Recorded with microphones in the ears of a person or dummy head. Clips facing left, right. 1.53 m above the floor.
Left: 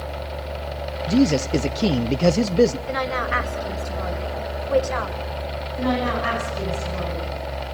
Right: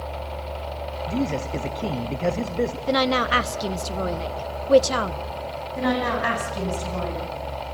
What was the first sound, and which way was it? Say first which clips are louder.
A man speaking: left 8 dB; 60° left (ahead or behind).